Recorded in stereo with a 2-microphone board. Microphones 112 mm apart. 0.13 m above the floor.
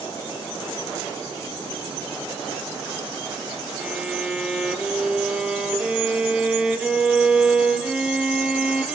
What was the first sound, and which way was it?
A violin, 10° right (ahead or behind).